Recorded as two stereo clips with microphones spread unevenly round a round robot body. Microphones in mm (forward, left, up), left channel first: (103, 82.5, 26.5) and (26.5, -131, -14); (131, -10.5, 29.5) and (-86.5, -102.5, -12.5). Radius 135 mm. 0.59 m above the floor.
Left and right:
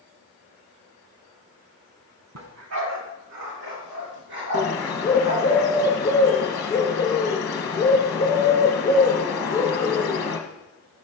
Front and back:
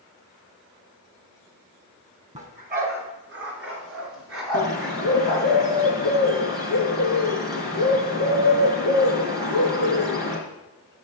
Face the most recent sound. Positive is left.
turn(degrees=125)